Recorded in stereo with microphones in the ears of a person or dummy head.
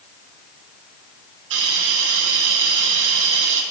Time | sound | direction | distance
1.5 | a hiss | 70° right (ahead or behind) | 1.6 m